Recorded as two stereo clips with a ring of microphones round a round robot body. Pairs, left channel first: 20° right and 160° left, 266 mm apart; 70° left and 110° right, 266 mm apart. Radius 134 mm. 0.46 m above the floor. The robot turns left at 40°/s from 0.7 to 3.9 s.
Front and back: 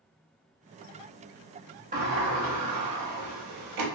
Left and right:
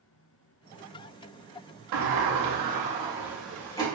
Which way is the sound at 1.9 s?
140° right.